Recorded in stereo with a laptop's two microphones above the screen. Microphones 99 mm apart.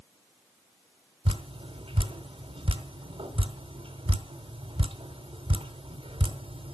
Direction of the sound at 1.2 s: 70° right (ahead or behind).